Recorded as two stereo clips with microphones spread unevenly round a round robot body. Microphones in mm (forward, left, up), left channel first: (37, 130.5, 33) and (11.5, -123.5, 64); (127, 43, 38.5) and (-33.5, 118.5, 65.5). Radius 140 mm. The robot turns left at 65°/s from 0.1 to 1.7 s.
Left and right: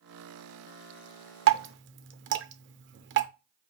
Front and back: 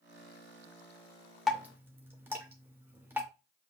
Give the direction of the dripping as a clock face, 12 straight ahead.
3 o'clock.